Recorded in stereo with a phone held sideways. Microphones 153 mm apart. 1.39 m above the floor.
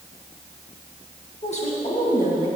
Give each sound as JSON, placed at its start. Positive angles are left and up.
{"t": 1.4, "sound": "a woman speaking", "side_deg": 40, "distance_m": 2.0}